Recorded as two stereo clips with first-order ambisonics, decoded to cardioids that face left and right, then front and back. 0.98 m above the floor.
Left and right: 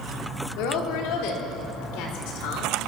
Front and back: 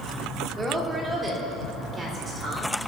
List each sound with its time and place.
0.6 s a woman speaking: 105° left, 2.5 m; by 2.9 s 110° left, 4 m